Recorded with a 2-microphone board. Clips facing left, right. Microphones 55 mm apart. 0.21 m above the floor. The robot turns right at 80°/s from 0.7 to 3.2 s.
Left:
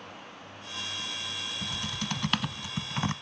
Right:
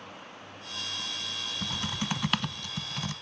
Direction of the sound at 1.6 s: 60° right.